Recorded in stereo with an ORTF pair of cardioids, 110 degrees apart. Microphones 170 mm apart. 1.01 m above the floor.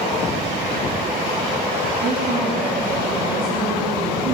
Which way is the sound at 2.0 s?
60° right.